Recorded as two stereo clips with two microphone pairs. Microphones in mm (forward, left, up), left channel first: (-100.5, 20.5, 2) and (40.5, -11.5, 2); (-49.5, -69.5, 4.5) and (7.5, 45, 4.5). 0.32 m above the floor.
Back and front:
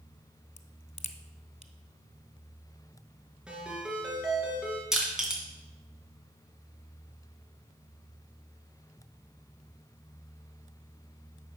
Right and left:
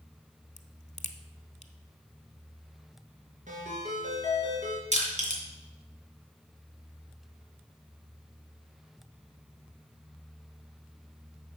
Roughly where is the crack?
Behind right.